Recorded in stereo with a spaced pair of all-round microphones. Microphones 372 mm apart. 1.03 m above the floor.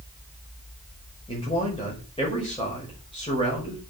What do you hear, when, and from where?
1.3 s a man speaking: 15° left (ahead or behind), 6 m